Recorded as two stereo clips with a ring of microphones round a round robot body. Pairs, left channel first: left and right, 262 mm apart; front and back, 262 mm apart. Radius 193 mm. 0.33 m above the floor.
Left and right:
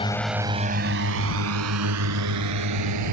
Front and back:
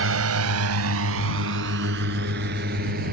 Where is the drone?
160° left; by 3.1 s 115° right.